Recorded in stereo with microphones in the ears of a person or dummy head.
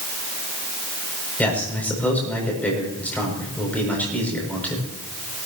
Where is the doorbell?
No doorbell in this recording.